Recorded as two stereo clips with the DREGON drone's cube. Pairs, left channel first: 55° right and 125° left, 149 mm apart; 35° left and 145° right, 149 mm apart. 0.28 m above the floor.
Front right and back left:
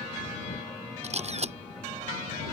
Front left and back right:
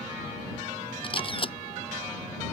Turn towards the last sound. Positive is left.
turn(degrees=85)